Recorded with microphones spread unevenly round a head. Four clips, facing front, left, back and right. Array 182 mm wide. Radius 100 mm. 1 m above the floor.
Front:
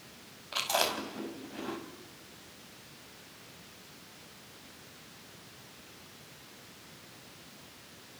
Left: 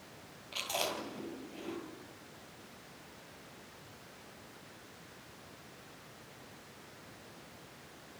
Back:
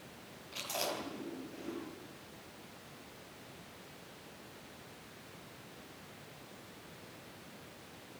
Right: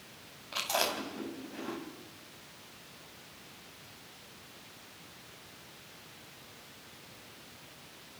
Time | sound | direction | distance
0.5 | chewing | 25° right | 5.5 m